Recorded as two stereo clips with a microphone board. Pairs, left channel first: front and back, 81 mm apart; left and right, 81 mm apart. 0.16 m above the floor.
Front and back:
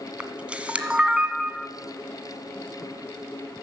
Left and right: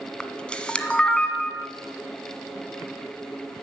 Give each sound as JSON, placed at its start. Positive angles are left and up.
{"t": 0.2, "sound": "a camera shutter", "azimuth_deg": 145, "distance_m": 1.4}